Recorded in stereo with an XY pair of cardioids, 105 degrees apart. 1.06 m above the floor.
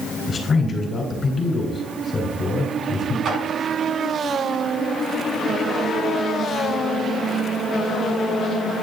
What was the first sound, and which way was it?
A man speaking, 40° left.